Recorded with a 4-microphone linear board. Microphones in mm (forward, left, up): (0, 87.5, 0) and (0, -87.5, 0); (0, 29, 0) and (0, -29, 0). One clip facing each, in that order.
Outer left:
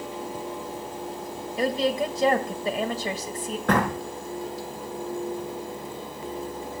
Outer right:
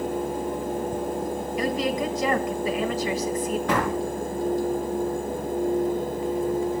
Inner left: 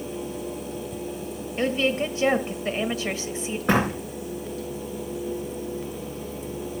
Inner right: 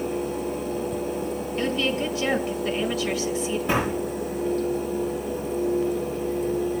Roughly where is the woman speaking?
Left.